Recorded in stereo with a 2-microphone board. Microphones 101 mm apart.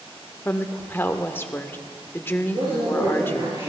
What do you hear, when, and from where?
0.5 s a woman speaking: 20° left (ahead or behind), 0.8 m
2.5 s a man speaking: 50° right (ahead or behind), 7 m